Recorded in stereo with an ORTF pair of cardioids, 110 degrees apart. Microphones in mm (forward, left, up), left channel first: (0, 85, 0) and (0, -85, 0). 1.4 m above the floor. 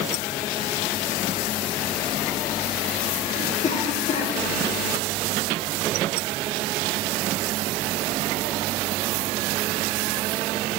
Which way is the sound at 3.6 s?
45° left.